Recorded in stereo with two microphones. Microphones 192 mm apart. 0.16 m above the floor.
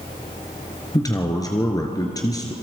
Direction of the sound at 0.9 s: 20° left (ahead or behind).